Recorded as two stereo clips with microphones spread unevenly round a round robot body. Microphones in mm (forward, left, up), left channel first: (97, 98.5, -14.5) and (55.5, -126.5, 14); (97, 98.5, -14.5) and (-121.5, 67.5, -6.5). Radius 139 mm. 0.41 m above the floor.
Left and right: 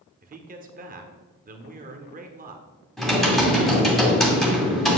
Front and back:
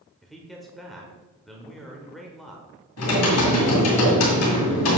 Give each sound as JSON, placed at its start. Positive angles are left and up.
{"t": 0.2, "sound": "a man speaking", "azimuth_deg": -80, "distance_m": 1.0}
{"t": 3.0, "sound": "typing on a keyboard", "azimuth_deg": -5, "distance_m": 2.5}